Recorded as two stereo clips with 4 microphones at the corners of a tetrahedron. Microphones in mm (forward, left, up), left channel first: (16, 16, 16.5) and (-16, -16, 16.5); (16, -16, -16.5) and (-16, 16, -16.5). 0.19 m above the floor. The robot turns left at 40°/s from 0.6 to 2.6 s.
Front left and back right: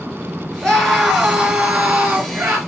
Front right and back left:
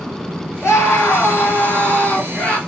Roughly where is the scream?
Ahead right.